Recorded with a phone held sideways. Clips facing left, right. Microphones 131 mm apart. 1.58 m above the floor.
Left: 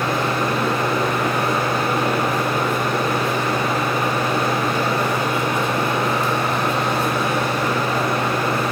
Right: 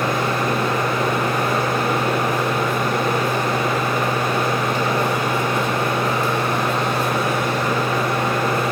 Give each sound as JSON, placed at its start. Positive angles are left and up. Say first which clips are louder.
{"t": 0.0, "sound": "a machine running", "louder": "even", "side_deg": -45, "distance_m": 1.7}